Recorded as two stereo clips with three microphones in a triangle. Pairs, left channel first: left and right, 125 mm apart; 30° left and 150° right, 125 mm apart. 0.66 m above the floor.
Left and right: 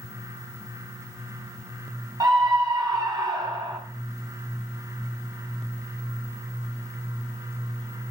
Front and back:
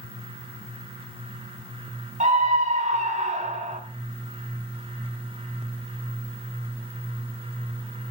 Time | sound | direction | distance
2.2 | a scream | 150° right | 5 m